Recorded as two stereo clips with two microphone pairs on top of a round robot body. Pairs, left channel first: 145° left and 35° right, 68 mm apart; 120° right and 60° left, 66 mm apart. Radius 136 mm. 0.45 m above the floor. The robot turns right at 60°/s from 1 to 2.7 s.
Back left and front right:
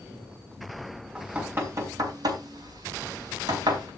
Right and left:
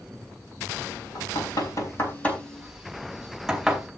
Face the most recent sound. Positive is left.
turn(degrees=-20)